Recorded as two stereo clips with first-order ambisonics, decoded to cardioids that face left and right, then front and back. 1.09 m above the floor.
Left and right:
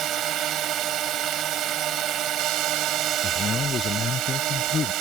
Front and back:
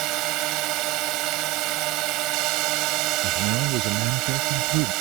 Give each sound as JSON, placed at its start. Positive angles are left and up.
{"t": 0.0, "sound": "a drone", "azimuth_deg": -145}
{"t": 3.2, "sound": "a man speaking", "azimuth_deg": 155}